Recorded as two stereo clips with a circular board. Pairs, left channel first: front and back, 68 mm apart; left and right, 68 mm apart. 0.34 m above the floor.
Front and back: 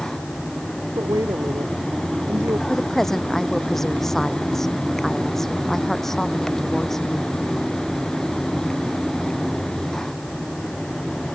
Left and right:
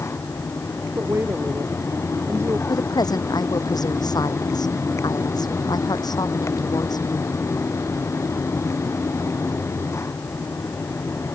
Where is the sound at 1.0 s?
145° right; by 2.6 s 135° right.